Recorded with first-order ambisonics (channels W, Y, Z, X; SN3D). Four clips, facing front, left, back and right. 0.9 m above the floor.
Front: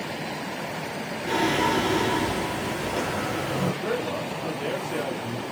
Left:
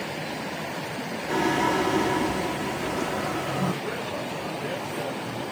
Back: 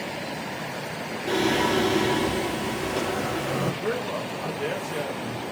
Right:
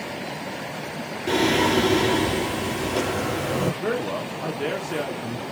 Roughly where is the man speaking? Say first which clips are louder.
Right 4 dB, even; right.